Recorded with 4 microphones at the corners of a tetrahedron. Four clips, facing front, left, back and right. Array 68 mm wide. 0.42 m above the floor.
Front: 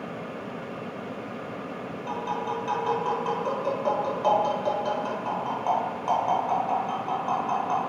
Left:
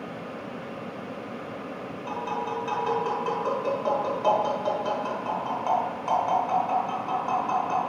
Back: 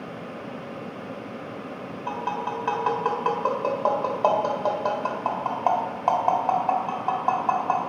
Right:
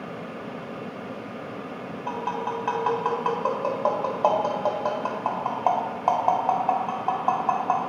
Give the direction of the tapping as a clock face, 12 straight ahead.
5 o'clock.